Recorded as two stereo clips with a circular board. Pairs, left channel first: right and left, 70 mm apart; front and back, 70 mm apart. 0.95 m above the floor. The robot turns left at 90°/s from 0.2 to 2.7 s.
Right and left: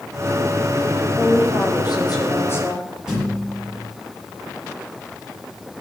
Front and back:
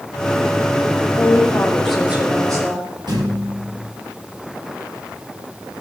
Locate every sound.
1.2 s a woman speaking: 20° right, 3 m; by 2.9 s 160° right, 3 m
3.1 s a thud: 170° left, 7 m